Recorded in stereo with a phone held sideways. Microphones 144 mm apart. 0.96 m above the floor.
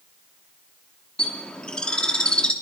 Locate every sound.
1.2 s a bird: 5° left (ahead or behind), 2 m